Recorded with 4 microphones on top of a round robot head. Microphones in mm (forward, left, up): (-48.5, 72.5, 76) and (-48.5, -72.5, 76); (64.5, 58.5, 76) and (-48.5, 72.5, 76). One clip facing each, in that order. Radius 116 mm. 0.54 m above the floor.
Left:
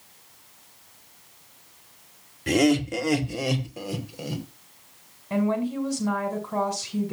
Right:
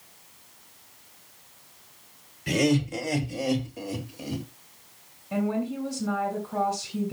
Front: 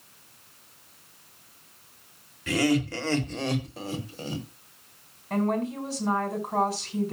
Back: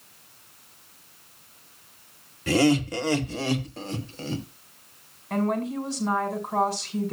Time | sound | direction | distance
2.5 | laughter | 120° left | 2.5 m
5.3 | a woman speaking | 80° left | 6 m